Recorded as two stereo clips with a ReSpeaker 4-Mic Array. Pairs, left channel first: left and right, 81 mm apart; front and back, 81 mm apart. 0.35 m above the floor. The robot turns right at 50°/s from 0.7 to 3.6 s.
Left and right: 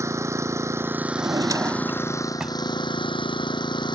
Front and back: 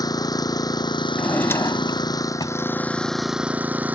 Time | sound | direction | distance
0.0 | an engine running | 35° right | ?
1.1 | a drawer | 75° right | ?